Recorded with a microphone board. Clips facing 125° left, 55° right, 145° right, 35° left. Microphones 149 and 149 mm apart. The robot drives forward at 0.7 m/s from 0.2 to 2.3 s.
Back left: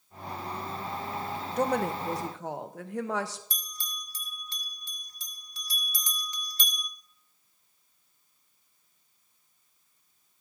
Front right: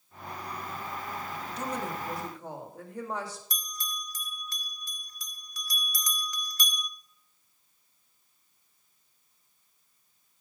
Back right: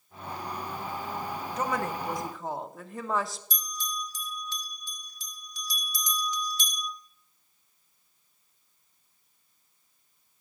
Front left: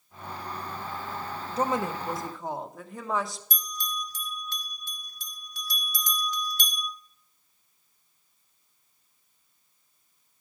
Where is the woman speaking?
90° left, 0.8 m; by 3.4 s 125° left, 1.0 m.